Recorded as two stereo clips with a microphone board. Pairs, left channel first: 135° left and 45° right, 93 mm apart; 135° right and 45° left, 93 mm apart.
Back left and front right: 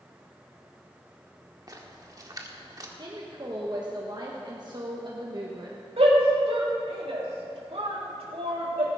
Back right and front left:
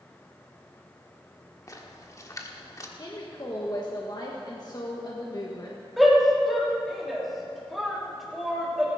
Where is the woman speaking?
90° right, 1.3 m.